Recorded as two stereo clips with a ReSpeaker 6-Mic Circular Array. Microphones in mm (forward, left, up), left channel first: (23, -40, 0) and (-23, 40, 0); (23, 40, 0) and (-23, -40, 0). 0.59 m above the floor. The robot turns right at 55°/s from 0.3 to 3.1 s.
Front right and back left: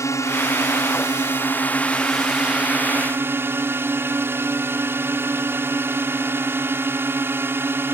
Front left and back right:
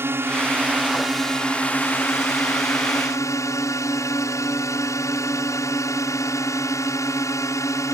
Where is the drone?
75° right; by 7.9 s 75° left.